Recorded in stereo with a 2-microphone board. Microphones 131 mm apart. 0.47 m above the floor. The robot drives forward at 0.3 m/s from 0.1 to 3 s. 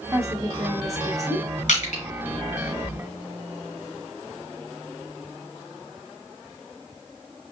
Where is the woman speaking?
25° right (ahead or behind), 1.0 m.